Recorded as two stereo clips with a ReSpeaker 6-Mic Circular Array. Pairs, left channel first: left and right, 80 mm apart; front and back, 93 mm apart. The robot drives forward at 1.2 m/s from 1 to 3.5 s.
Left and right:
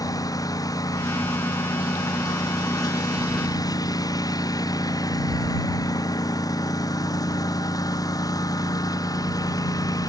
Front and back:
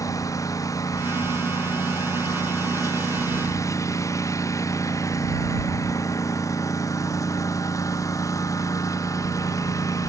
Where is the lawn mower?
50° left.